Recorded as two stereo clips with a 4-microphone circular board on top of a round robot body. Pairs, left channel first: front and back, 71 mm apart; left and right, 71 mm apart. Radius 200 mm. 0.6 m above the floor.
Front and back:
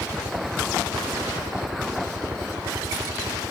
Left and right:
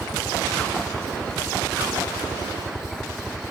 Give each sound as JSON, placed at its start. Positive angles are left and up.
{"t": 0.0, "sound": "a helicopter", "azimuth_deg": 175}